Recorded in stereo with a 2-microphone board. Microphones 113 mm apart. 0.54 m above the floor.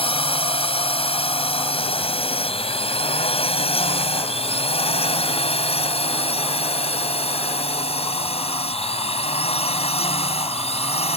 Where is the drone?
50° left (ahead or behind); by 11.2 s 60° left (ahead or behind).